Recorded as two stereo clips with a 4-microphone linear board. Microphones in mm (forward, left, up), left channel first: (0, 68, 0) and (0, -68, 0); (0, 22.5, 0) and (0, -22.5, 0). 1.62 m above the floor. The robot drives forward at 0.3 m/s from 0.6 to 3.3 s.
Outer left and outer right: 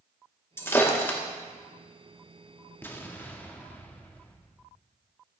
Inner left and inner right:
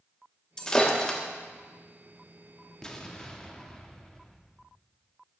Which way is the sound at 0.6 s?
15° left (ahead or behind).